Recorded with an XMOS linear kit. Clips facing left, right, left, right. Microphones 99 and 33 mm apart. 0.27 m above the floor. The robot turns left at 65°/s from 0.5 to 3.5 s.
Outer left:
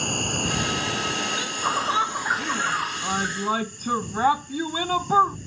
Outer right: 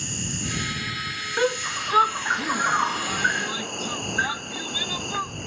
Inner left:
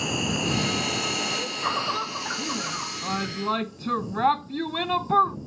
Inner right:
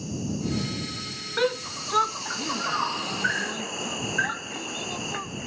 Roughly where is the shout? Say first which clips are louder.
Outer right 6 dB, even; right.